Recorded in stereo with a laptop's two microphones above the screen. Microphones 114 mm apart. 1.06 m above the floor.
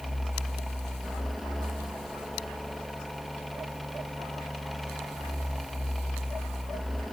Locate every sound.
0.0 s a fan: centre (ahead or behind), 1.8 m